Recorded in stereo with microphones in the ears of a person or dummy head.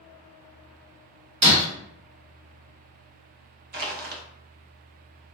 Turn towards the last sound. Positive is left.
turn(degrees=-45)  # may be behind; listen again after turning